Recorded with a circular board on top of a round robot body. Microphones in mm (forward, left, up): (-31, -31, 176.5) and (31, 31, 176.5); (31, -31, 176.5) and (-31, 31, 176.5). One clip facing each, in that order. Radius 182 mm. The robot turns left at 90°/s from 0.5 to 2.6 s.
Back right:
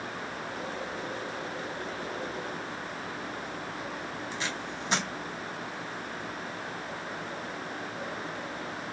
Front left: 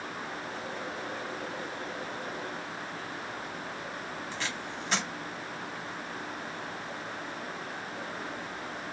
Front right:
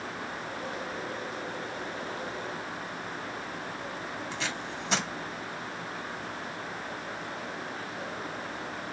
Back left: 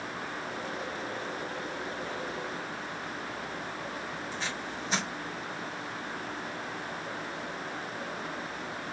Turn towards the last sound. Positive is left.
turn(degrees=-60)